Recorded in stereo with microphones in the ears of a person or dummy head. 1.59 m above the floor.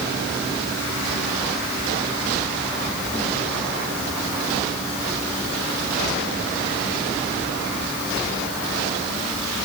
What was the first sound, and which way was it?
Only background noise.